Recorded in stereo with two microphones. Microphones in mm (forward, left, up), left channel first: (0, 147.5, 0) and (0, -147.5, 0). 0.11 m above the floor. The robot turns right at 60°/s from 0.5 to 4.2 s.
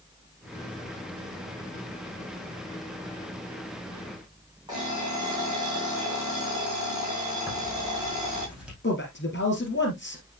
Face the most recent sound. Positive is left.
turn(degrees=40)  # may be behind; listen again after turning